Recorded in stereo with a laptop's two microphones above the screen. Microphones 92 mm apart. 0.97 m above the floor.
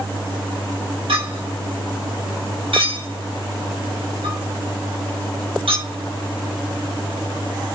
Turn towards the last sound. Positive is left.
turn(degrees=-75)  # may be behind; listen again after turning